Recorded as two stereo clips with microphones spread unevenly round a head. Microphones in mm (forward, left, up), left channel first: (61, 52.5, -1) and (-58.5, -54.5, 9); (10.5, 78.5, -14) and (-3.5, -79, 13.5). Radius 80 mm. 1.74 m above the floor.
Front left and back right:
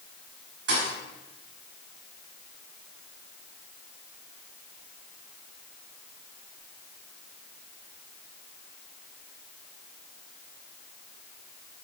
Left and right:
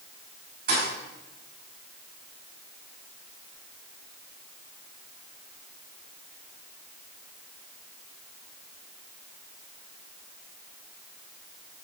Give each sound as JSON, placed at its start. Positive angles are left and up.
{"t": 0.7, "sound": "a thud", "azimuth_deg": -125, "distance_m": 4.5}